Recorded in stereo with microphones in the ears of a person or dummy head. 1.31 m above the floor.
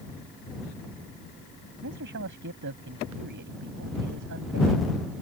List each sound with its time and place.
1.8 s a man speaking: 70° right (ahead or behind)